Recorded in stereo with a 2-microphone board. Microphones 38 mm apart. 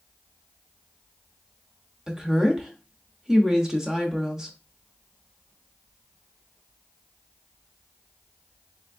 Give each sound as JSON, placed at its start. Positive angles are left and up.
{"t": 2.1, "sound": "a woman speaking", "side_deg": -15, "distance_m": 0.8}